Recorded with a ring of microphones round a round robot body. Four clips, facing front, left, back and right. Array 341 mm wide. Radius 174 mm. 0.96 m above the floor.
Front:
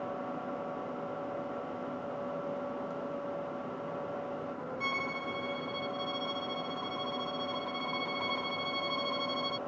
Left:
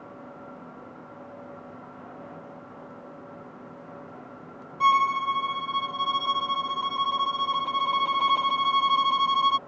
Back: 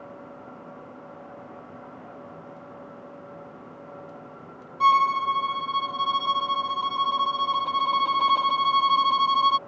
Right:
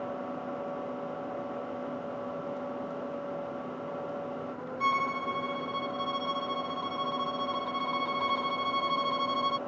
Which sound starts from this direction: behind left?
A violin, at 4.8 s.